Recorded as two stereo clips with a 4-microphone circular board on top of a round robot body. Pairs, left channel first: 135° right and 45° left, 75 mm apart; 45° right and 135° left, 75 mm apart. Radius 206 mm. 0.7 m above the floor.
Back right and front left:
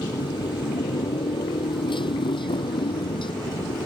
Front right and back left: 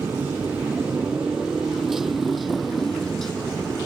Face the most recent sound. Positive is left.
turn(degrees=-130)